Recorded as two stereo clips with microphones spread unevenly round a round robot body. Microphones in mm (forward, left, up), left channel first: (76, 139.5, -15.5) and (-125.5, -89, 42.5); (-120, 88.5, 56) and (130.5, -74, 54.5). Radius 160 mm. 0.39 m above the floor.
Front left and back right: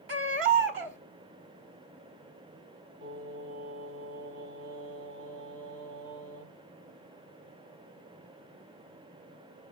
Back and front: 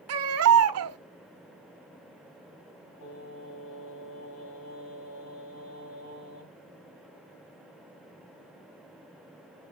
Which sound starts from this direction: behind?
Singing, at 3.0 s.